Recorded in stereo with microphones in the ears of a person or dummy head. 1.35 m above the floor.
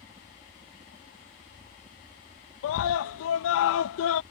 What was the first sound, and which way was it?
A helicopter, 15° right (ahead or behind).